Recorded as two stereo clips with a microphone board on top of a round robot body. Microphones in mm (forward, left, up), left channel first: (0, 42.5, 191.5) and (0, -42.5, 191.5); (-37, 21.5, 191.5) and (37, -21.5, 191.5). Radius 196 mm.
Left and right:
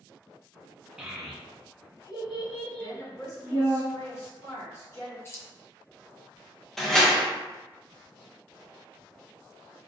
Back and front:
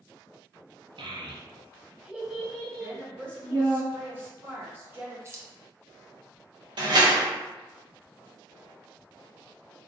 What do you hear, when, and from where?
1.0 s a child speaking: 10° right, 0.8 m; by 3.8 s 90° left, 1.6 m
2.8 s a woman speaking: 35° left, 1.3 m
5.2 s keys jangling: 30° left, 0.5 m
6.8 s a door slam: 5° left, 0.6 m